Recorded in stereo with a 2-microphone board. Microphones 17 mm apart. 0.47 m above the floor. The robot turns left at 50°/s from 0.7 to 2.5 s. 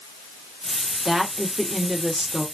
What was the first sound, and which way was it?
A woman speaking, 35° right.